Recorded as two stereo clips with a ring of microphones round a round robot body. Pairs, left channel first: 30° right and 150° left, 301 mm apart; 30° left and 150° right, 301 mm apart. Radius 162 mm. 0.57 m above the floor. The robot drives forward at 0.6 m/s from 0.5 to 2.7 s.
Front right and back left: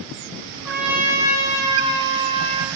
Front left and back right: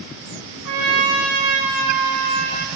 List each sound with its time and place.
0.7 s a trumpet: 125° right, 3.5 m; by 2.7 s 135° right, 4.5 m